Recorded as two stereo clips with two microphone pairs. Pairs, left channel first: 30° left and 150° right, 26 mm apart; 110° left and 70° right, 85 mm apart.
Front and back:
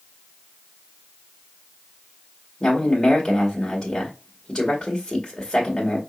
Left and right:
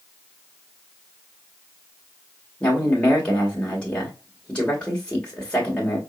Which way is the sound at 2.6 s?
45° left.